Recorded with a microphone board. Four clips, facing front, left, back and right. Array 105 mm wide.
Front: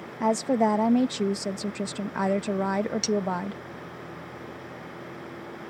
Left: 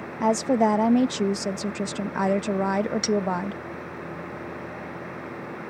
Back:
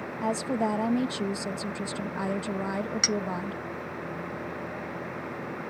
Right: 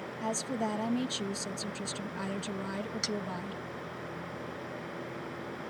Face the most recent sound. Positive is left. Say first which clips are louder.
# left 11 dB, front 3 dB
turn(degrees=170)